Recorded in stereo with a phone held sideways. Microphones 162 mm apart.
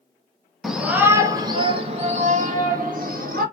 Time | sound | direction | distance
0.6 | a shout | centre (ahead or behind) | 1.0 m